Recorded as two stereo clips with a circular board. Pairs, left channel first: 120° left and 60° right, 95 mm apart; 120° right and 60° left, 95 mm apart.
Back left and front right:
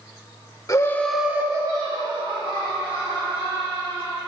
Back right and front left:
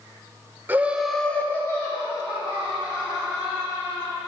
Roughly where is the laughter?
Behind left.